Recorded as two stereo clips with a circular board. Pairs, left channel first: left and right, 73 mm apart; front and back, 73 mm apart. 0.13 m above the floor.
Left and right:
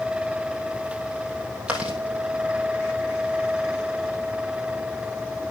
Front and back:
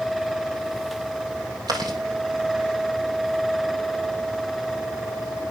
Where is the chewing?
165° right, 3 m.